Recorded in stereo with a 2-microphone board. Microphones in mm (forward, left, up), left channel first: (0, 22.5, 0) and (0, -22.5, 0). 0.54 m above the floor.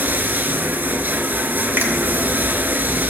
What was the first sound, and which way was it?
Running water, 50° right (ahead or behind).